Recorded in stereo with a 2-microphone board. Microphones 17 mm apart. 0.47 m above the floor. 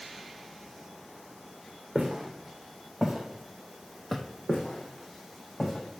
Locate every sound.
1.9 s footsteps: 35° right (ahead or behind), 2.5 m; by 4.2 s 10° left (ahead or behind), 1.0 m
4.5 s footsteps: 35° left (ahead or behind), 2.5 m; by 6.0 s 15° left (ahead or behind), 2.0 m